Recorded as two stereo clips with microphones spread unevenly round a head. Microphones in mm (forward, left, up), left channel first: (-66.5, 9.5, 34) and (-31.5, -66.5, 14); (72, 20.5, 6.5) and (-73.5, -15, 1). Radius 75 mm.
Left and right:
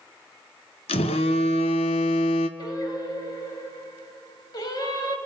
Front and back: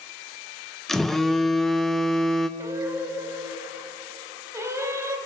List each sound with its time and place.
0.9 s a phone buzzing: 100° left, 1.0 m
2.6 s singing: 120° left, 1.8 m